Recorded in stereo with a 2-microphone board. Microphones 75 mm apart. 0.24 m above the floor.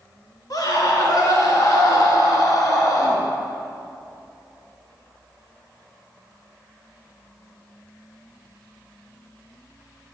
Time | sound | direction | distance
0.5 | a scream | 60° left (ahead or behind) | 2.5 m